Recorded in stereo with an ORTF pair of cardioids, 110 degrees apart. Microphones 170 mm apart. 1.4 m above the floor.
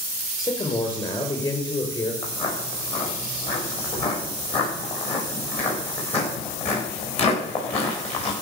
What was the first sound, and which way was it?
A man speaking, 25° left.